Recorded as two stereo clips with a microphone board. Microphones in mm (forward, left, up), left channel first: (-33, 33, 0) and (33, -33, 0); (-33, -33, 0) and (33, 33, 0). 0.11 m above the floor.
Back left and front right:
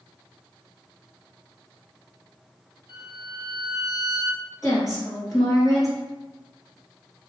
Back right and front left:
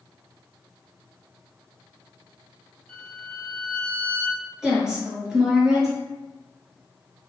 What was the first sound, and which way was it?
A violin, 150° left.